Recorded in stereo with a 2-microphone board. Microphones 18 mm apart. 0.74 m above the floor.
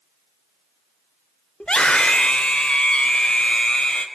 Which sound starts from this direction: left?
A scream, at 1.6 s.